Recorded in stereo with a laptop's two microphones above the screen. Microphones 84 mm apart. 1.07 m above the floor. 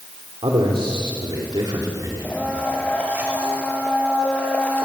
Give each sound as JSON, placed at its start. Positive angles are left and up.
{"t": 0.4, "sound": "a man speaking", "side_deg": -80, "distance_m": 3.0}
{"t": 2.2, "sound": "a blender", "side_deg": 15, "distance_m": 4.0}